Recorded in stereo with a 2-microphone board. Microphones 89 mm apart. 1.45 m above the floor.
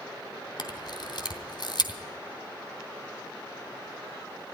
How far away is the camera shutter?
About 2.5 m.